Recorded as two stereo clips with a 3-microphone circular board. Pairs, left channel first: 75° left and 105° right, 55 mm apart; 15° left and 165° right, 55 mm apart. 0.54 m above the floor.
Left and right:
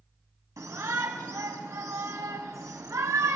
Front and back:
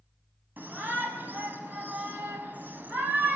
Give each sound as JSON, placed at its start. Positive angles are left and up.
{"t": 0.6, "sound": "a shout", "azimuth_deg": -110, "distance_m": 3.5}